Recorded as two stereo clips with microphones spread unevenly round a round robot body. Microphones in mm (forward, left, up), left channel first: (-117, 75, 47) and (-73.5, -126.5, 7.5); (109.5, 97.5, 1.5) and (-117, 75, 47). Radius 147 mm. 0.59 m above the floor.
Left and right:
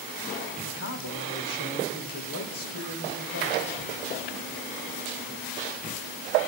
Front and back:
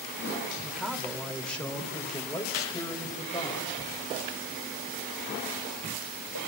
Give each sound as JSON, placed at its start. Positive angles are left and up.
{"t": 0.6, "sound": "a man speaking", "azimuth_deg": 95, "distance_m": 2.5}